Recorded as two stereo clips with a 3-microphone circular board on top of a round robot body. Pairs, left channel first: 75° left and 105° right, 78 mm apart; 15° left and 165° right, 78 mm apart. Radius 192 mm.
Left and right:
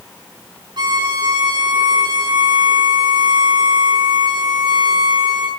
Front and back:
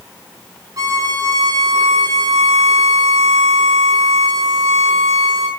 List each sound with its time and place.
0.8 s a violin: 125° right, 6 m